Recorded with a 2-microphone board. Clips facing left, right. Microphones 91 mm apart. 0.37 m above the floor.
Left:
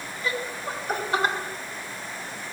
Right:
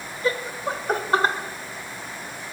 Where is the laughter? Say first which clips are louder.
Right 5 dB; 35° right (ahead or behind), 1.6 m.